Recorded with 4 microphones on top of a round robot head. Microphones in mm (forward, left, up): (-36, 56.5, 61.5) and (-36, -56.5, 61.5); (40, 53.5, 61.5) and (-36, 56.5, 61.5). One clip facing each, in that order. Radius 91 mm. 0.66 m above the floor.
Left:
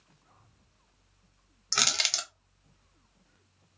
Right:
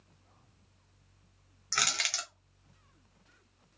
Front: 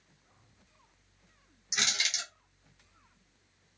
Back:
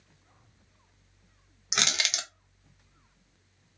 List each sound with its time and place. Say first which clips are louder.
1.7 s crushing: left 2 dB, back 3 dB; 155° left, 0.5 m